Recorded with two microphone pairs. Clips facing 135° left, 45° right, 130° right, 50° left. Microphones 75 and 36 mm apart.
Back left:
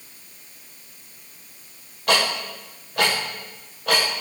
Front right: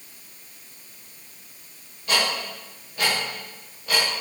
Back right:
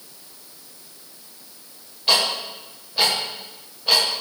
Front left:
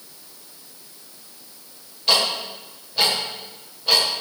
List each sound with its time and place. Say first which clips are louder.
2.1 s ticking: back left 3 dB, even; 150° left, 5.5 m